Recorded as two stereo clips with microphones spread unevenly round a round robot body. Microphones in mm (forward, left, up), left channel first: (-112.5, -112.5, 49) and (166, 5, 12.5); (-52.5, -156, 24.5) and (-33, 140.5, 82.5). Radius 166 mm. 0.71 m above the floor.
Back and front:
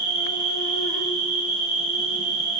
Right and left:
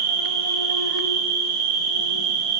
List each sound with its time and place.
0.0 s an insect: 135° left, 5 m